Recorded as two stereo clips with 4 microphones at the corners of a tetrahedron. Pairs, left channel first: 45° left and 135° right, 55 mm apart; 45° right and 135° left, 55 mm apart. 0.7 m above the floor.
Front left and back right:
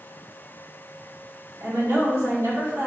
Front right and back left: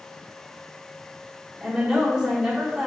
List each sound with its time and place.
1.6 s a woman speaking: 150° right, 1.4 m